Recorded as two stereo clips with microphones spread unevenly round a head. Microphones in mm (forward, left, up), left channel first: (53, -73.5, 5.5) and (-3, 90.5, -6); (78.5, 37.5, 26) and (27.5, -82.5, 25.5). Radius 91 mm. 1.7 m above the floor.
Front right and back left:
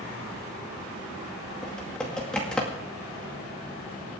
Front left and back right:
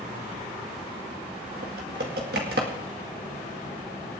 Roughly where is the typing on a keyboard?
Behind right.